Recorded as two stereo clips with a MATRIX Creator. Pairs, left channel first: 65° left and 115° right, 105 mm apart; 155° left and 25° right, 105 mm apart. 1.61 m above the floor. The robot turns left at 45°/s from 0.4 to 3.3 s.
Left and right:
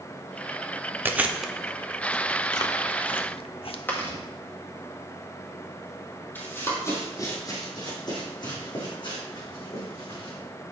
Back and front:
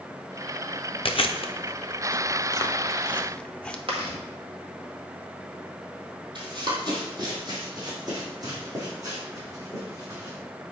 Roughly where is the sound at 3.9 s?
Ahead.